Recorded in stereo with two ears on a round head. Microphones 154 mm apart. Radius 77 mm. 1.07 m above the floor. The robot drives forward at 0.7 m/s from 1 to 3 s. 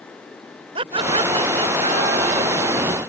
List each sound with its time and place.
0.8 s laughter: 30° right (ahead or behind); by 2.8 s 45° right (ahead or behind)